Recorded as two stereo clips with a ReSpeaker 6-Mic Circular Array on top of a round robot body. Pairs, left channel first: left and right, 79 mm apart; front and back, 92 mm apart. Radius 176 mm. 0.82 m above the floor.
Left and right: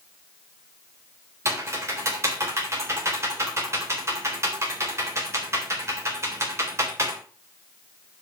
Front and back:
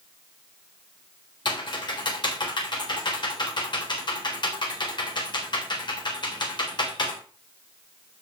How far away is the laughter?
I don't hear laughter.